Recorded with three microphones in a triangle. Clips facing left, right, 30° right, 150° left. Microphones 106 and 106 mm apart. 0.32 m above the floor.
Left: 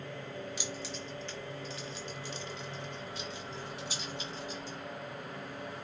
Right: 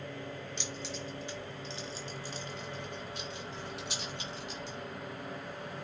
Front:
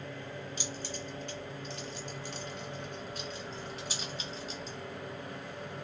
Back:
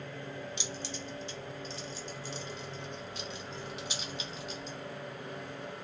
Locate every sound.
0.6 s keys jangling: 10° left, 1.3 m; by 4.8 s 85° right, 2.5 m